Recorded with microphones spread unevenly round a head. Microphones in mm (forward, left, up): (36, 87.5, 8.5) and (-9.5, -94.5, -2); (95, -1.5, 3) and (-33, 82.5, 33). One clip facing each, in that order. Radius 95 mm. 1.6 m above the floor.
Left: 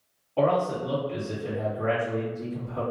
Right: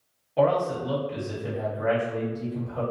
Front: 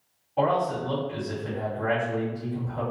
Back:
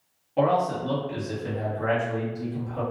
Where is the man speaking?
175° right, 1.4 m.